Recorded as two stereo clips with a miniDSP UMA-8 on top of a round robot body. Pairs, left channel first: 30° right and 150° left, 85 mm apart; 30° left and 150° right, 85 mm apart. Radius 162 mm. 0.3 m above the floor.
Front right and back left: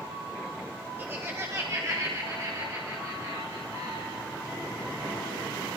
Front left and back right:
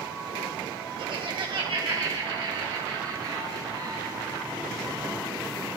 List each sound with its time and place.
1.0 s laughter: 145° right, 1.9 m; by 4.3 s straight behind, 4.5 m